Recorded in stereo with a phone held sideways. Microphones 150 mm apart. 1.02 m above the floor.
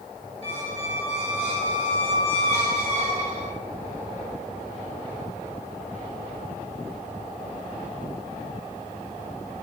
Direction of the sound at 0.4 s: 45° right (ahead or behind).